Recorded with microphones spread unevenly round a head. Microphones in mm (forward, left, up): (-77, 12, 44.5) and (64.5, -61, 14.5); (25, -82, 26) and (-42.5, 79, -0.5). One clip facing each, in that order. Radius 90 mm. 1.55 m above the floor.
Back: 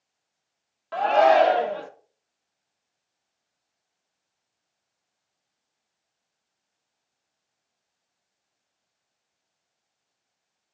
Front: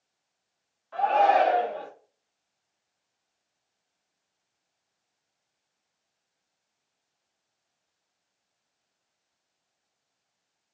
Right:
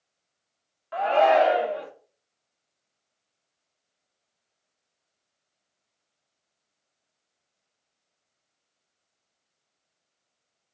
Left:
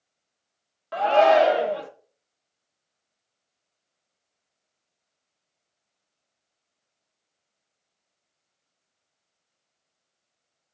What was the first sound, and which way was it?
A shout, 155° left.